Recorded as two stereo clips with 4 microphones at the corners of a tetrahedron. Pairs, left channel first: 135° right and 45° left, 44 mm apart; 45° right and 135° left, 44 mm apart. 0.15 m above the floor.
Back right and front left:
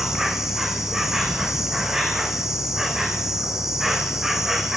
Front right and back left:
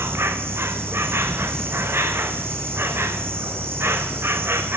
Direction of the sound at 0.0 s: 125° left.